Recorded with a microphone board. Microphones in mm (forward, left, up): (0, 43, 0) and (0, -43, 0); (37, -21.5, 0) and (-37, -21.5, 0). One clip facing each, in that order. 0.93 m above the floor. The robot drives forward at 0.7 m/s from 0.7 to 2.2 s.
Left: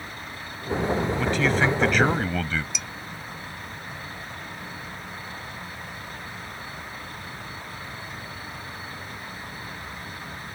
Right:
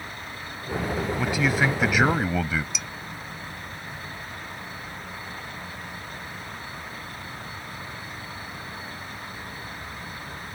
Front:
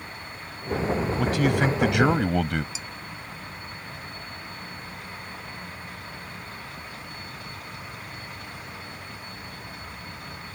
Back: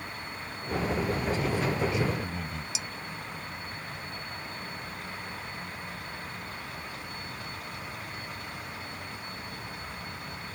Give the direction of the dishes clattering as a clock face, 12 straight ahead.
6 o'clock.